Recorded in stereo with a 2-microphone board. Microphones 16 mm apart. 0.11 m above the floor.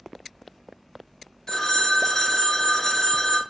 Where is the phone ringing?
40° left (ahead or behind), 0.8 m.